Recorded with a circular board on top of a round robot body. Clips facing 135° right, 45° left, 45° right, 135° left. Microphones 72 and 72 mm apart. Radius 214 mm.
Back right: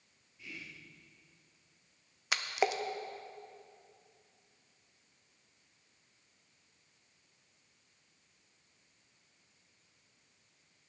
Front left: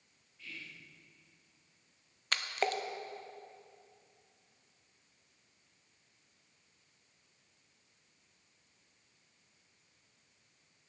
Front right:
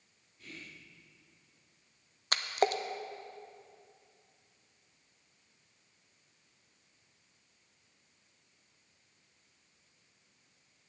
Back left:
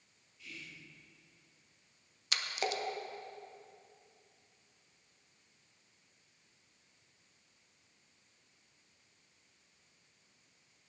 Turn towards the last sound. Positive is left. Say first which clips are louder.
# back right 2 dB, front right 7 dB
turn(degrees=-55)